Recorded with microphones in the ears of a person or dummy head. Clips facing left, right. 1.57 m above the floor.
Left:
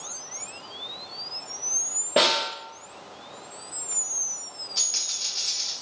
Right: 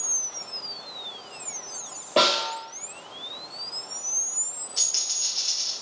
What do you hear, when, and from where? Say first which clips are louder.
2.2 s a snare drum: even; 20° left (ahead or behind), 1.0 m
4.8 s a dropped coin: even; 55° left (ahead or behind), 2.0 m